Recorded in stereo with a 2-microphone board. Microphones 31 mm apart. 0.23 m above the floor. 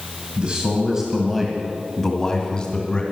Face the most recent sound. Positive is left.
turn(degrees=30)  # may be behind; listen again after turning